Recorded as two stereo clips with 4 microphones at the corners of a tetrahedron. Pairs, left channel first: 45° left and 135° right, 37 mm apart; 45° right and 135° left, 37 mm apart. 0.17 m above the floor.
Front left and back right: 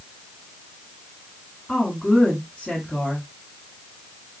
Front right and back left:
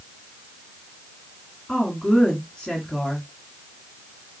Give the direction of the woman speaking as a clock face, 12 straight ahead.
12 o'clock.